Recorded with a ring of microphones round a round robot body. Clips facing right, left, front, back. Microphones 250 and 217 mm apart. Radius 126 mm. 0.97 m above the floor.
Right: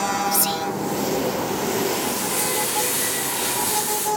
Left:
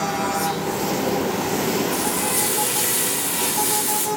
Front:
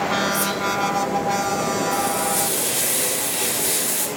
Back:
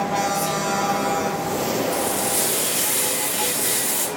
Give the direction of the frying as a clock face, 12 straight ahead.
9 o'clock.